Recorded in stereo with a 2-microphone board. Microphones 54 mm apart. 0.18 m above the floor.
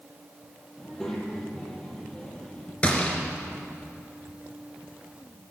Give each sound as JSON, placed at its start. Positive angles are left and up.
{"t": 0.8, "sound": "a child speaking", "side_deg": 5, "distance_m": 5.0}
{"t": 2.8, "sound": "a gunshot", "side_deg": 20, "distance_m": 3.0}